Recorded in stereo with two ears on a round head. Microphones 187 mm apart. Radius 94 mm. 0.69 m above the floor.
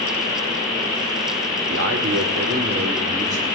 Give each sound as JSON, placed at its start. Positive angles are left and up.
{"t": 1.7, "sound": "a man speaking", "side_deg": -65, "distance_m": 1.5}